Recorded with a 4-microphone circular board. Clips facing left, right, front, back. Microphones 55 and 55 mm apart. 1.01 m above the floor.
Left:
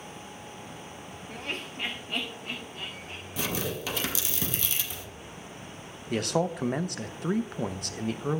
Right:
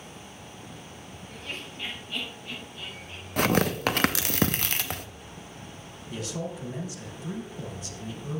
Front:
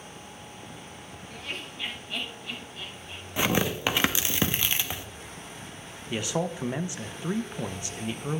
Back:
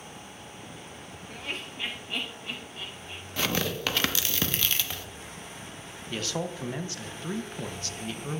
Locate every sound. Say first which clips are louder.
1.3 s laughter: left 3 dB, back 1 dB; 105° left, 0.5 m; by 3.2 s 130° left, 2 m
3.4 s tearing paper: right 8 dB, front 3 dB; 70° right, 0.6 m
6.1 s a man speaking: left 7 dB, front 3 dB; 75° left, 0.5 m